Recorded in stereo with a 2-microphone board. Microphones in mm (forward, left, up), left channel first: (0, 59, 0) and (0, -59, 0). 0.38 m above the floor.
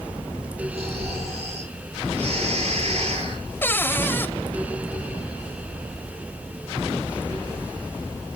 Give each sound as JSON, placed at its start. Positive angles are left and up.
{"t": 0.7, "sound": "snoring", "side_deg": -55, "distance_m": 9.0}
{"t": 3.6, "sound": "a cupboard door", "side_deg": 20, "distance_m": 0.8}